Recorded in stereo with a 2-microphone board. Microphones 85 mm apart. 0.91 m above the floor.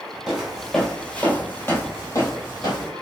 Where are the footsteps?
5° right (ahead or behind), 1.0 m; by 2.9 s 45° left (ahead or behind), 1.4 m.